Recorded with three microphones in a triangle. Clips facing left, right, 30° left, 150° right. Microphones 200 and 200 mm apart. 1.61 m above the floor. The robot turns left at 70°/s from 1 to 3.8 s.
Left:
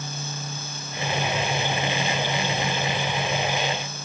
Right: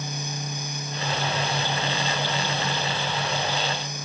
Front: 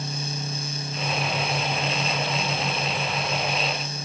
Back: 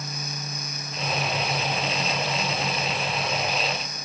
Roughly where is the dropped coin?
No dropped coin in this recording.